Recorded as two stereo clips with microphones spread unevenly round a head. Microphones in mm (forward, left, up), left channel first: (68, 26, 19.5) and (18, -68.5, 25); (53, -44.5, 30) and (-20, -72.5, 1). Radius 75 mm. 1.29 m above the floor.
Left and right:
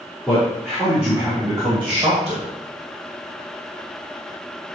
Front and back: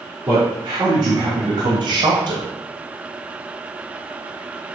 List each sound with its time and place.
0.3 s a man speaking: 155° left, 3.5 m; by 2.5 s 170° right, 1.3 m